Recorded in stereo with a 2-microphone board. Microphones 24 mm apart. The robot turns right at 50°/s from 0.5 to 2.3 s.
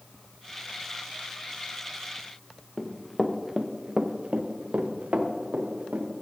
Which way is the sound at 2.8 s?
10° left (ahead or behind).